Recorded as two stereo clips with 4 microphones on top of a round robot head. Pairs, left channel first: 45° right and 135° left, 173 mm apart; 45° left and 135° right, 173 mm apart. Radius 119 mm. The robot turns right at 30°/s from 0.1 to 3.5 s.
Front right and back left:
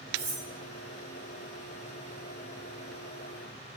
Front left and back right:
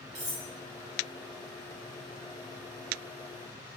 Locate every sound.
0.1 s cutlery clinking: 170° left, 1.3 m; by 0.5 s straight behind, 1.3 m